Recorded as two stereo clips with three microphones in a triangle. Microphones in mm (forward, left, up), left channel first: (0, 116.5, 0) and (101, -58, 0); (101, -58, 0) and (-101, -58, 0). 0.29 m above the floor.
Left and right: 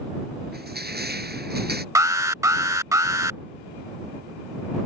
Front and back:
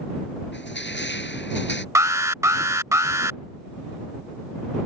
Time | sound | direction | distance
0.5 | crushing | 25° right | ?
1.9 | an alarm | 120° right | ?